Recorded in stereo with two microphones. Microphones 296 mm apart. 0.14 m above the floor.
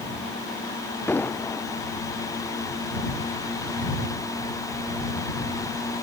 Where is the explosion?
5° left (ahead or behind).